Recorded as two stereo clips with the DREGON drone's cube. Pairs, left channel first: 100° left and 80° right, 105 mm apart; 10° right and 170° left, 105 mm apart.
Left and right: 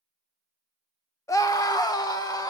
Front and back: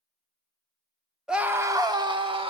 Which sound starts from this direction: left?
A scream, at 1.3 s.